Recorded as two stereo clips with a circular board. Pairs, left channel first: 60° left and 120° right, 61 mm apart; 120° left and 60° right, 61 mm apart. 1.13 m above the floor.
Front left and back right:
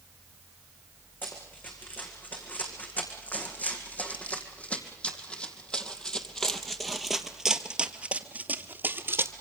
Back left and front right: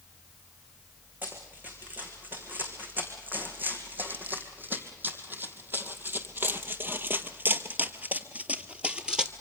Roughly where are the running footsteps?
Ahead.